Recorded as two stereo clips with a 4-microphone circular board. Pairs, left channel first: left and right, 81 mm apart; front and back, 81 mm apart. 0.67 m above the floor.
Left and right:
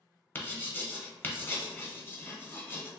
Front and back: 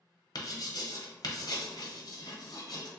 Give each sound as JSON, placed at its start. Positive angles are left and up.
{"t": 0.3, "sound": "writing", "azimuth_deg": 25, "distance_m": 0.7}